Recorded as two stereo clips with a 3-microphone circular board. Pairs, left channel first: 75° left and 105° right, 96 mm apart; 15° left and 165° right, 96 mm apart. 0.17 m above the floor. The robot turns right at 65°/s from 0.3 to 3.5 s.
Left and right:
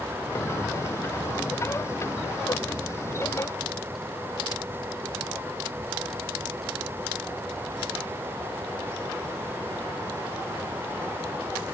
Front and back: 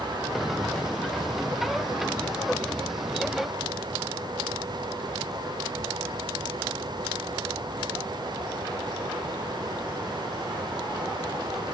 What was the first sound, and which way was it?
Only background noise.